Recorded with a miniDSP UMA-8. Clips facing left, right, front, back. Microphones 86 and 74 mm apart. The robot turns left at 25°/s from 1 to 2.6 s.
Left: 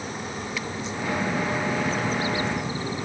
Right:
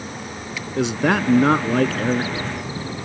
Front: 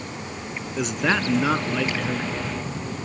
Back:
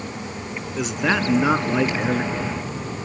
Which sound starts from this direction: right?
A man speaking, at 0.8 s.